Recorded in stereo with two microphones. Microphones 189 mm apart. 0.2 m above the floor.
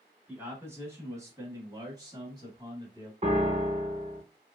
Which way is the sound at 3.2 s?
35° right (ahead or behind).